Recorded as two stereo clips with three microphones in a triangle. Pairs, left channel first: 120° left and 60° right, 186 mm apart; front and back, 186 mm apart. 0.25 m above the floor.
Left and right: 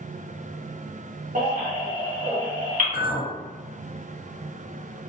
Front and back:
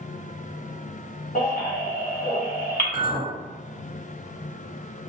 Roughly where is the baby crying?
Ahead right.